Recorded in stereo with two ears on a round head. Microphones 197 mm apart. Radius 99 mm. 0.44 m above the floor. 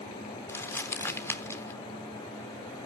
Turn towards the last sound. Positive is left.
turn(degrees=10)  # may be behind; listen again after turning